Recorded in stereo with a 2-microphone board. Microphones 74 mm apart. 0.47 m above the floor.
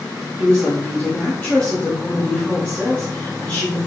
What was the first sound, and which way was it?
A woman speaking, 15° left (ahead or behind).